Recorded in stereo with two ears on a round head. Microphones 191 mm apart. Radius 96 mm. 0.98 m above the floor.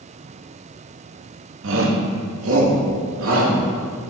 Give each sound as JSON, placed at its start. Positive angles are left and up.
{"t": 1.6, "sound": "a shout", "side_deg": -65, "distance_m": 1.8}